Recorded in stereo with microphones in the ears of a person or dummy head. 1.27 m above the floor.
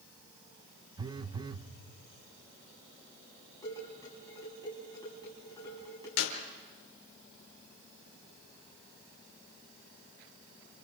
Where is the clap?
75° left (ahead or behind), 3.5 m.